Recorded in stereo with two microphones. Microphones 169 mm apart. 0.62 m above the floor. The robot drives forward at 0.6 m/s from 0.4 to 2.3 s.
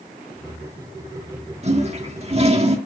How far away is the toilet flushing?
About 1.5 m.